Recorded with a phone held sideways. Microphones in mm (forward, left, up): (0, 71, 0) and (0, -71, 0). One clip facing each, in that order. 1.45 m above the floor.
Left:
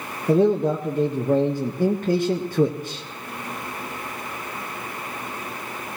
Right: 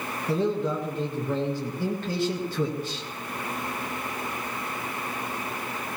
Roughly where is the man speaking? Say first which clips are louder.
Left 8 dB; left.